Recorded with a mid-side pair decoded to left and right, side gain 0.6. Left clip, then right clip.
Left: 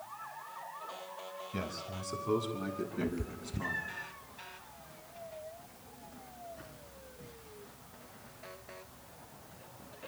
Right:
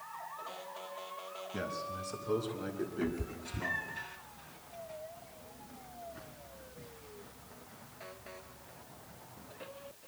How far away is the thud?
I don't hear a thud.